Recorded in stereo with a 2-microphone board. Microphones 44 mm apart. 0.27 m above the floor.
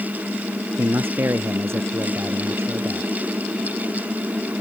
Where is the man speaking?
65° right (ahead or behind).